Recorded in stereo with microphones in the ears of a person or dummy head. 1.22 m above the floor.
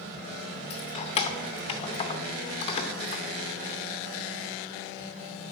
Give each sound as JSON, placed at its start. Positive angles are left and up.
{"t": 0.7, "sound": "keys jangling", "side_deg": 30, "distance_m": 0.8}